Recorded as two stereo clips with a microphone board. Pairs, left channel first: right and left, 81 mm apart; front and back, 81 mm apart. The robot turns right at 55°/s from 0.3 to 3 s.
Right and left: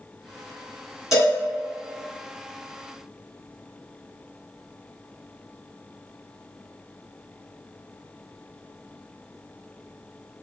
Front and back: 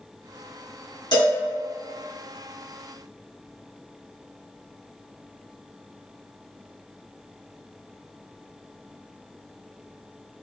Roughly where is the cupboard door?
I don't hear a cupboard door.